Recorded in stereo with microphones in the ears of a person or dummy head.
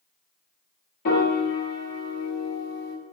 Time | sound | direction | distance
1.1 | a piano | 45° left (ahead or behind) | 0.9 m